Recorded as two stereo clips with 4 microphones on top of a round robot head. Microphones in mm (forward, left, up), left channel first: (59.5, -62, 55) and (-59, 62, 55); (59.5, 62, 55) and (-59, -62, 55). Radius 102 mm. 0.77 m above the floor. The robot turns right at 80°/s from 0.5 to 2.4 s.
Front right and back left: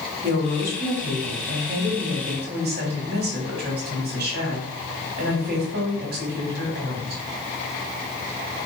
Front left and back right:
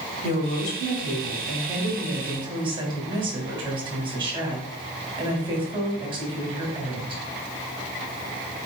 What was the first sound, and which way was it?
A woman speaking, 10° left.